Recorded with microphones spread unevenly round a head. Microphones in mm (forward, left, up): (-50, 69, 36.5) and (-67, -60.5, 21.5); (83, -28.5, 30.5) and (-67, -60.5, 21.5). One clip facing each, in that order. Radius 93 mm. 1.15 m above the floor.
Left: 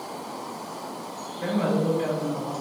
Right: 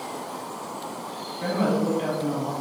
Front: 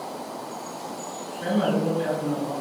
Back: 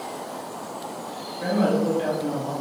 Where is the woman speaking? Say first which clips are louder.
Right 1 dB, back 2 dB; 135° right, 1.9 m.